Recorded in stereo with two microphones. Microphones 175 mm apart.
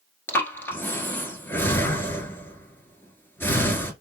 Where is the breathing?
15° left (ahead or behind), 1.3 m.